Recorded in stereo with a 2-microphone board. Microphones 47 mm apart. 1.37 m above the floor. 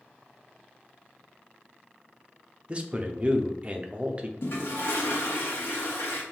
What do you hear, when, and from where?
2.7 s a man speaking: 30° right (ahead or behind), 0.6 m
4.4 s a toilet flushing: 65° left (ahead or behind), 1.2 m